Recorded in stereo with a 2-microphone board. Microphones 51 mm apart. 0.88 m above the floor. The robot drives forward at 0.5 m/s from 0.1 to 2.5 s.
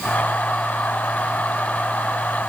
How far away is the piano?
I don't hear a piano.